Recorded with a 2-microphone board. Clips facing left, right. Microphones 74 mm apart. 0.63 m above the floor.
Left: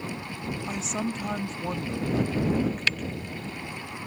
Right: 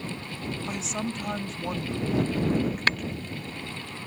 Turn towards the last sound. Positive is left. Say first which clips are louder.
# right 3 dB
turn(degrees=-50)  # may be behind; listen again after turning